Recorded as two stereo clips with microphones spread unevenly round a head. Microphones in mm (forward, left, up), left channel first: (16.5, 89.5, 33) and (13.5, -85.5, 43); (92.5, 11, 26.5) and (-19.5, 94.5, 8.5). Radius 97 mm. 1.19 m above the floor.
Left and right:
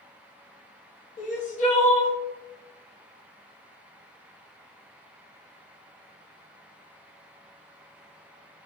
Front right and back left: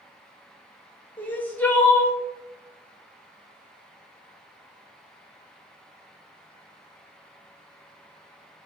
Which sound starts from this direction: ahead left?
Crying, at 1.2 s.